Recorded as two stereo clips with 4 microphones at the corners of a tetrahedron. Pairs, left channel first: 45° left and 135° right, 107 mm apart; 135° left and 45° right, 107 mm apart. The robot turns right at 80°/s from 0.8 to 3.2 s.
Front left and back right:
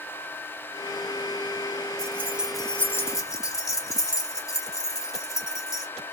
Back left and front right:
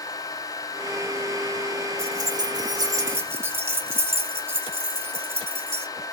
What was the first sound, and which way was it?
Keys jangling, 90° right.